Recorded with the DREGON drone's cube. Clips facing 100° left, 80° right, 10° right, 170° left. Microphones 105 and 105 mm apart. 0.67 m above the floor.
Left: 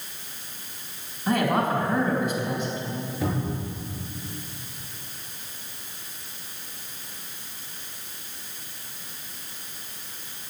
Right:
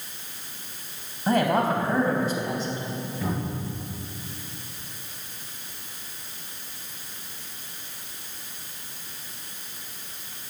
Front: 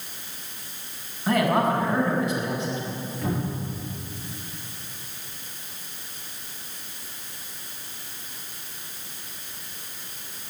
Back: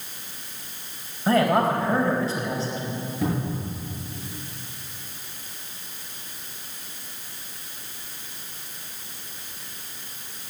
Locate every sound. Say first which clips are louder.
1.3 s a man speaking: right 1 dB, back 2 dB; 135° right, 3.5 m
3.2 s a cupboard door: left 2 dB, back 2 dB; 175° left, 6.5 m